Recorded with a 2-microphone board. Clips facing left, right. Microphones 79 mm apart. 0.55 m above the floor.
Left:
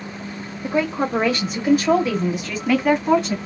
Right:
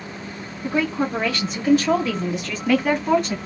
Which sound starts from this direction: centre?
A woman speaking, at 0.6 s.